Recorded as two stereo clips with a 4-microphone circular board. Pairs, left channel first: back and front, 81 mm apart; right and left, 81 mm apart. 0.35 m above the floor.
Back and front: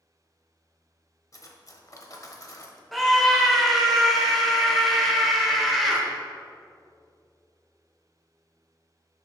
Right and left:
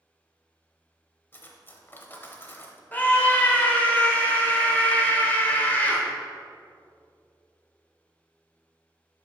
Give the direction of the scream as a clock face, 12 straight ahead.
3 o'clock.